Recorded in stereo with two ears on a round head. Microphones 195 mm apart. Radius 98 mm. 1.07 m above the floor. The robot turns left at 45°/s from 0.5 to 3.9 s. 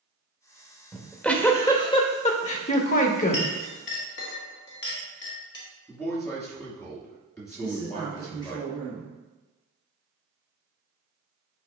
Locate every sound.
0.9 s a giggle: 175° right, 0.9 m; by 3.5 s 70° left, 0.9 m
3.3 s a clink: 30° left (ahead or behind), 1.4 m; by 5.7 s 55° left (ahead or behind), 1.4 m
5.9 s a man speaking: 15° left (ahead or behind), 2.5 m
7.6 s a woman speaking: 20° left (ahead or behind), 1.6 m